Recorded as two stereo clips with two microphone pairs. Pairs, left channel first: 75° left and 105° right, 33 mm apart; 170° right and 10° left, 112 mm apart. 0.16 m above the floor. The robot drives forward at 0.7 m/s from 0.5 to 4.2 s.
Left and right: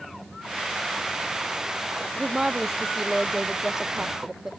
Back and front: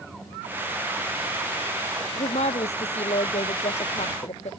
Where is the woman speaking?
175° right; by 4.5 s straight behind.